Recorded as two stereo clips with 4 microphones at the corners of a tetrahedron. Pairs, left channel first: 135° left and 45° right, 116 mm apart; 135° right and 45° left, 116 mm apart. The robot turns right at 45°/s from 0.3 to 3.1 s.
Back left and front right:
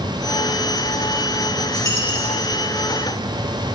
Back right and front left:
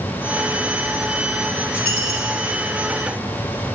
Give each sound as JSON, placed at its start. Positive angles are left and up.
{"t": 1.8, "sound": "a dropped coin", "azimuth_deg": 70, "distance_m": 4.0}